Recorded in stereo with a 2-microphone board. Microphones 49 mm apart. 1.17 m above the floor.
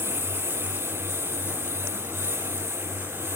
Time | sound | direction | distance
0.0 | a lawn mower | 60° right (ahead or behind) | ?